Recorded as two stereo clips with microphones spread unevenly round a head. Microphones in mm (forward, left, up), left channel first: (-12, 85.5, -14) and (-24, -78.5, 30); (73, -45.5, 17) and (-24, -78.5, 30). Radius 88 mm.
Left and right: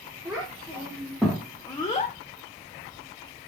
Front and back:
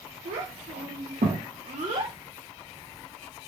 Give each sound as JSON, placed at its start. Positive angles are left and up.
{"t": 0.2, "sound": "a child speaking", "azimuth_deg": -165, "distance_m": 1.1}